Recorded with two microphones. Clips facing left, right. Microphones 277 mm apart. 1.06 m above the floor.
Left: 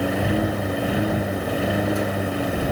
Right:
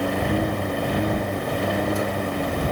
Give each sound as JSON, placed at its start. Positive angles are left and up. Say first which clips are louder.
{"t": 0.0, "sound": "a lawn mower", "louder": "left 1 dB", "side_deg": 5}